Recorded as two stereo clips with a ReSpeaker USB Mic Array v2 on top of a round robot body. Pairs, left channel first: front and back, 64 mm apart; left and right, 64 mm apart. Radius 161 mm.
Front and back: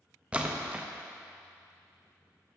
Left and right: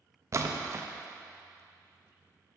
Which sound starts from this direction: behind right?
A splash, at 0.3 s.